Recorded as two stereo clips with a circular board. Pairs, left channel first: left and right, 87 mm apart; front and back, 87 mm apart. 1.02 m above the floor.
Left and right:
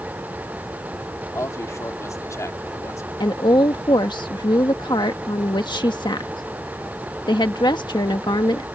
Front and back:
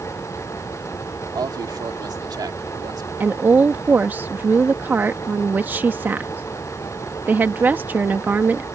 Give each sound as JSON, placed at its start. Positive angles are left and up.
{"t": 1.3, "sound": "a man speaking", "azimuth_deg": 140}
{"t": 3.2, "sound": "a woman speaking", "azimuth_deg": 115}